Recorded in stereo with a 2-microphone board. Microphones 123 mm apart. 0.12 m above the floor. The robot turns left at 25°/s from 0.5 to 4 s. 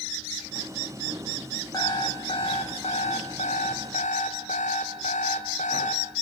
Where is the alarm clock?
150° left, 4.5 m; by 6.0 s 95° left, 4.5 m.